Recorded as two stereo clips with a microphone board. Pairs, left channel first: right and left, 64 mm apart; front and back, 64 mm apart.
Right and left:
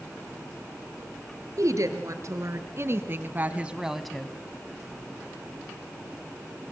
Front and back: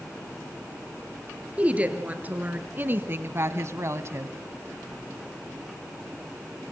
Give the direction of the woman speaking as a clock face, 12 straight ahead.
8 o'clock.